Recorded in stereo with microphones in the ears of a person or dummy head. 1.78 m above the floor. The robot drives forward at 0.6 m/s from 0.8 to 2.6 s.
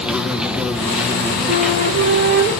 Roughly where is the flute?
Right.